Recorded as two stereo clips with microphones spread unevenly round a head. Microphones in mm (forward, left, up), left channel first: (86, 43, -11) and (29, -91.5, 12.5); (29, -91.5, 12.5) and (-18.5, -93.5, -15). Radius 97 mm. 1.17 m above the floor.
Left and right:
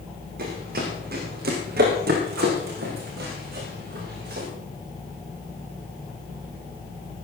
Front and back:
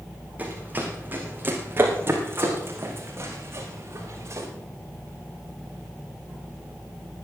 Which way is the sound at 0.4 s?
110° right.